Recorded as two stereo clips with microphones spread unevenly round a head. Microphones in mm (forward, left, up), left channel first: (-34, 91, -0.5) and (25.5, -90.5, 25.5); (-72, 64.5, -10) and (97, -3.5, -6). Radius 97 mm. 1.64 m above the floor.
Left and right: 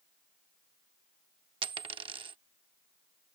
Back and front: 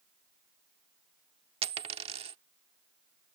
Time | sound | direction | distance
1.6 | a dropped coin | 50° right | ?